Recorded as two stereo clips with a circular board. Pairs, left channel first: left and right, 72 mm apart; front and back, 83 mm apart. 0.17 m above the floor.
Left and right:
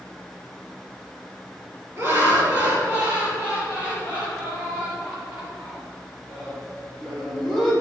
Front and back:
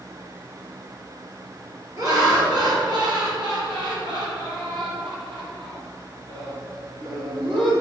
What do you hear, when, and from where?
2.0 s laughter: 145° right, 3 m; by 7.7 s 175° right, 6 m